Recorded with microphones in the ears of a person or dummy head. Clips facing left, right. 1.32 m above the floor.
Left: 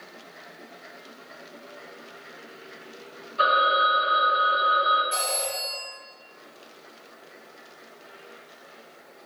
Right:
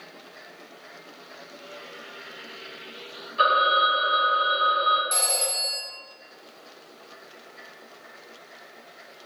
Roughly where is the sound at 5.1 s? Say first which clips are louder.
Even; right.